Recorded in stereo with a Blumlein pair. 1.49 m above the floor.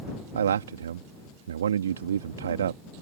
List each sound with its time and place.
0.3 s a man speaking: 65° right